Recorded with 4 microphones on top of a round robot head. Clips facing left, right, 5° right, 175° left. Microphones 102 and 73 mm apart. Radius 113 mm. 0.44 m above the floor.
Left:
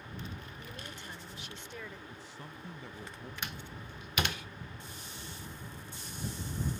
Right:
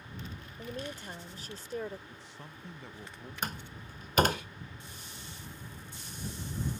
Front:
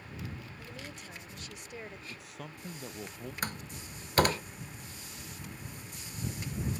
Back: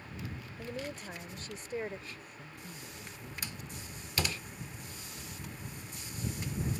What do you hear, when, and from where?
0.6 s a woman speaking: 140° right; by 2.0 s 135° right
2.1 s a man speaking: straight ahead
3.4 s a door slam: 45° right